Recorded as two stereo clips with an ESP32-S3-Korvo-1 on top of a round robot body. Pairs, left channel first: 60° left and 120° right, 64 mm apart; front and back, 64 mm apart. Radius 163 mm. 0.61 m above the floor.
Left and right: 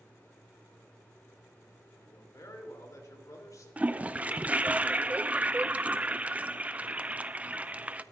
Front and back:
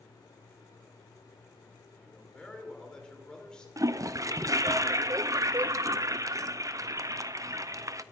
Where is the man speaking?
75° left, 2.5 m.